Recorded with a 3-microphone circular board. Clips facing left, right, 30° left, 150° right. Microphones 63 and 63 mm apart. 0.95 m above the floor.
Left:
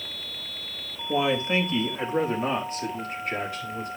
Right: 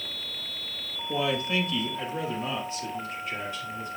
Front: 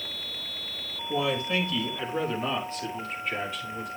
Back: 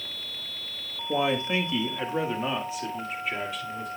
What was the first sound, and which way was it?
A man speaking, 155° left.